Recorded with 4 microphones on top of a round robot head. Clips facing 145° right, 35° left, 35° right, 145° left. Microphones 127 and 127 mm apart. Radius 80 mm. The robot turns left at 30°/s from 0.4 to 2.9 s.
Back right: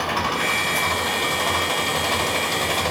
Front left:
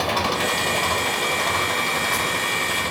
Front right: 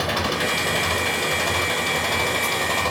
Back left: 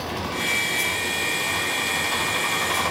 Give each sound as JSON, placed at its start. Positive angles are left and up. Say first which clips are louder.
{"t": 0.0, "sound": "an engine running", "louder": "front left 1 dB, front right 5 dB", "azimuth_deg": -25, "distance_m": 5.5}